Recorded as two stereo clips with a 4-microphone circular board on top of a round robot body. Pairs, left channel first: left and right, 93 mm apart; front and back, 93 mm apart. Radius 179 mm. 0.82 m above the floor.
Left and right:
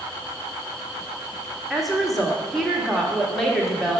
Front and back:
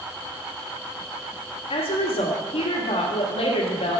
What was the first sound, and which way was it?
A woman speaking, straight ahead.